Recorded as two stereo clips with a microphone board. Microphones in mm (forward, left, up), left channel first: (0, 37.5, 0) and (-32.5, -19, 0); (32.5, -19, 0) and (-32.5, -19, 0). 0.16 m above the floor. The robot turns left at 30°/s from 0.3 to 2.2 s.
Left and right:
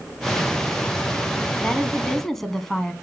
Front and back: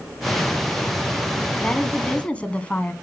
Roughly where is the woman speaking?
Ahead.